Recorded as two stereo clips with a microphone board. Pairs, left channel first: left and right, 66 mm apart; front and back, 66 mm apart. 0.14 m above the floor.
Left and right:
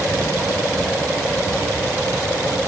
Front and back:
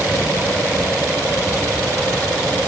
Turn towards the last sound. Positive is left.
No sound to turn to.